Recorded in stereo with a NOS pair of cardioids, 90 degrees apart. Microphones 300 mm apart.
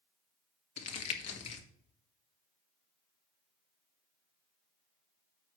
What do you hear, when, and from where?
0.8 s crumpling: 55° left, 1.5 m